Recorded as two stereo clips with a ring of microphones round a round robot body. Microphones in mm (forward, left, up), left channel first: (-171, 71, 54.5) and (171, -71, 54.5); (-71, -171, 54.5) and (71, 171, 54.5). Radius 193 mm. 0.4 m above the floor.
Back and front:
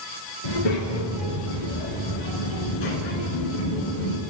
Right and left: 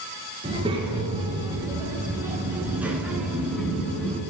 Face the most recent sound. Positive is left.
turn(degrees=160)